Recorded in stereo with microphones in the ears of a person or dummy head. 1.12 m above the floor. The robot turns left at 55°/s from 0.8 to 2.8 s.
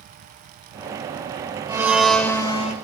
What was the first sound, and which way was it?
A blender, 165° right.